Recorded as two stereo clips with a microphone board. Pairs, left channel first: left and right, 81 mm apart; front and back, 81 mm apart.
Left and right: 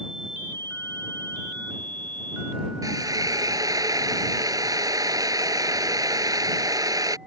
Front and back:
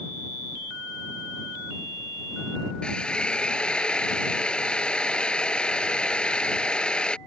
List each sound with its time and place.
2.8 s a drill: 75° right